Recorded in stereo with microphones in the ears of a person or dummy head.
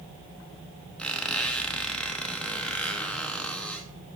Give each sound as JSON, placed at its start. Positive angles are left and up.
{"t": 1.0, "sound": "a squeak", "side_deg": 10, "distance_m": 0.7}